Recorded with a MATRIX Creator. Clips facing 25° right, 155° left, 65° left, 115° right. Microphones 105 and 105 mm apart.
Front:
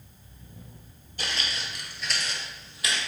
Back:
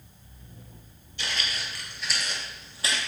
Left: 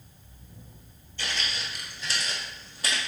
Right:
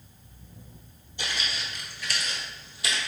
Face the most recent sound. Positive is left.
turn(degrees=105)